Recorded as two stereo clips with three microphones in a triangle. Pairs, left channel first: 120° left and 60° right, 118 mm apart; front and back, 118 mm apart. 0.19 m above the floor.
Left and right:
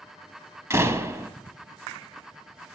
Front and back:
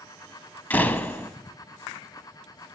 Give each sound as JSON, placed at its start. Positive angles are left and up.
{"t": 0.7, "sound": "a door slam", "azimuth_deg": -50, "distance_m": 0.7}